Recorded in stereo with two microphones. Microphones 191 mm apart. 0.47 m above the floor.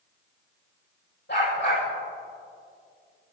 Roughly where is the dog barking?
Left.